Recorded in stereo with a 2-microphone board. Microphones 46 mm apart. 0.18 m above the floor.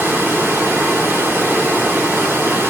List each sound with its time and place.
0.0 s running water: 60° right (ahead or behind), 1.3 m